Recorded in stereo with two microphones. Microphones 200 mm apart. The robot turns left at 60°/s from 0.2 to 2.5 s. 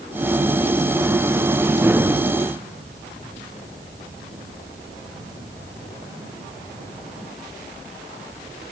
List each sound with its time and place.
Only background noise.